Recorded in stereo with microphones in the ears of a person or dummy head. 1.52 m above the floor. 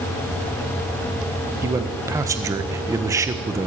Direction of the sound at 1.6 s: 15° right (ahead or behind).